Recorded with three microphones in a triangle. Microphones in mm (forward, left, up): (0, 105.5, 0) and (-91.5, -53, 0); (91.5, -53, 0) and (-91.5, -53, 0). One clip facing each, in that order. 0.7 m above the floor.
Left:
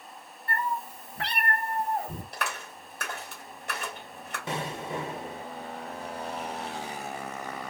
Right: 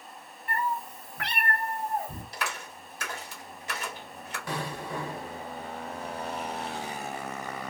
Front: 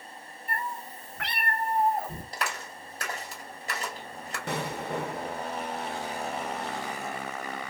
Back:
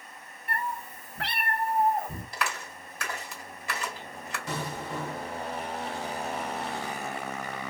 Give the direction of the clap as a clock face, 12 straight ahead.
11 o'clock.